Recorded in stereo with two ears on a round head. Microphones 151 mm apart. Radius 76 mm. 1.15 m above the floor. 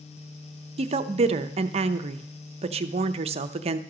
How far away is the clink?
No clink in this recording.